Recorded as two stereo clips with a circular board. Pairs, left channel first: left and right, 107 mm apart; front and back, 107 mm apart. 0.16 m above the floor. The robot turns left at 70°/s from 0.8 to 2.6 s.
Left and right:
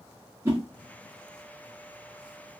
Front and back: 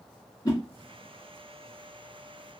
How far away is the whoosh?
About 2 m.